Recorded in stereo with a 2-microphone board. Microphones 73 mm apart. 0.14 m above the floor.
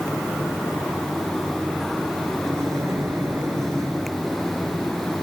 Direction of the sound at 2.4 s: 45° right (ahead or behind).